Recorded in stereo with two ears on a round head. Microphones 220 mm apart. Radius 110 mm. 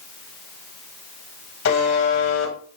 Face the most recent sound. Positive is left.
turn(degrees=55)  # may be behind; listen again after turning